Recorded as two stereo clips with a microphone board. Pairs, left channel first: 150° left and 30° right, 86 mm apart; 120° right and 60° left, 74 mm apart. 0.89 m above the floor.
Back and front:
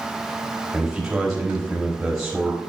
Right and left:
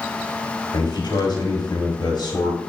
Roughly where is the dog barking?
No dog barking in this recording.